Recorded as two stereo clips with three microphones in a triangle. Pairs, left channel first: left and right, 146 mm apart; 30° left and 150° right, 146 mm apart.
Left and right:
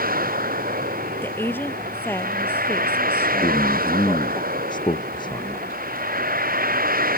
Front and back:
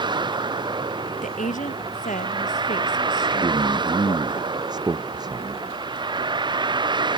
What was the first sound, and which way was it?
A vehicle, 90° right.